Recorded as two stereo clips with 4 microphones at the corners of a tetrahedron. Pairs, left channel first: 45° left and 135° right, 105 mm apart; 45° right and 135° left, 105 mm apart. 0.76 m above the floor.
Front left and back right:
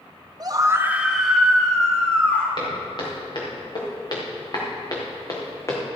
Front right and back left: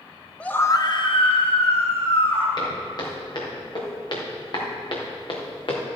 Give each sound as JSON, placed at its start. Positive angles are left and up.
{"t": 0.4, "sound": "a scream", "azimuth_deg": -120, "distance_m": 0.7}
{"t": 2.6, "sound": "footsteps", "azimuth_deg": 0, "distance_m": 4.5}